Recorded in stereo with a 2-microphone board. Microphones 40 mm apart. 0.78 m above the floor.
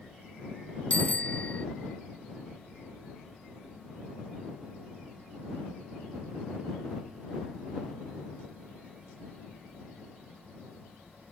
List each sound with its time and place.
0.9 s a bicycle bell: 30° left (ahead or behind)